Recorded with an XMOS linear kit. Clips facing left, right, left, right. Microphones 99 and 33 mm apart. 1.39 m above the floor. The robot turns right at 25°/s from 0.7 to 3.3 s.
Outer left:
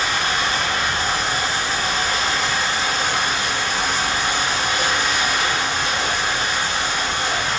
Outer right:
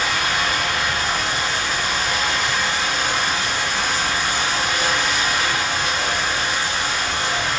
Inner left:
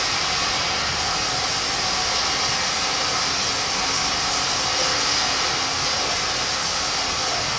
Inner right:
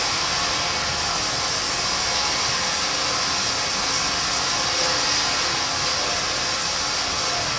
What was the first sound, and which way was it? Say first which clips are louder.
Running water: even, inner left 1 dB; 65° left.